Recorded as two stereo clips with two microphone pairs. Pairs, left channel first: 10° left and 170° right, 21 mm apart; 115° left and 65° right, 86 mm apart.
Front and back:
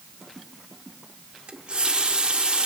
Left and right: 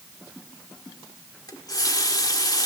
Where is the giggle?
I don't hear a giggle.